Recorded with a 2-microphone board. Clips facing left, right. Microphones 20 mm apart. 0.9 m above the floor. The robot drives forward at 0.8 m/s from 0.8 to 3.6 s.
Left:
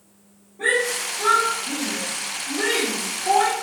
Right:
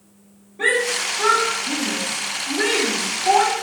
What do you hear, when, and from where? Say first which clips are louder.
0.6 s a shout: right 2 dB; 65° right (ahead or behind), 1.8 m; by 3.5 s 35° right (ahead or behind), 3 m